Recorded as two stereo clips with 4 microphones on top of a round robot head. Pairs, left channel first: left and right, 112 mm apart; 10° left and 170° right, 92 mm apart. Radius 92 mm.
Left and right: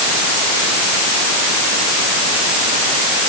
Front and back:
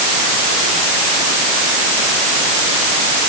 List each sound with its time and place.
Only background noise.